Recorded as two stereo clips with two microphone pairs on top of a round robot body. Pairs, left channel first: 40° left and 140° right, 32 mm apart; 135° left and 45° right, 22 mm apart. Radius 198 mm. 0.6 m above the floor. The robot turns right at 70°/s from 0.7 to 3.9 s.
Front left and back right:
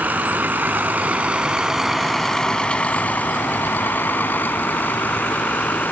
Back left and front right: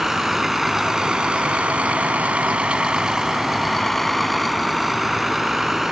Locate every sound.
0.0 s a vehicle: 120° right; by 5.9 s 25° left